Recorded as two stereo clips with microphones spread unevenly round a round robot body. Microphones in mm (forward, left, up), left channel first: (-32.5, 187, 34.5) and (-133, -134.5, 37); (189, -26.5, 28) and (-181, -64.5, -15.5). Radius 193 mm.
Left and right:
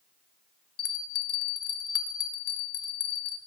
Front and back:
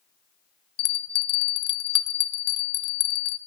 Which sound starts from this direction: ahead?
A bell, at 0.8 s.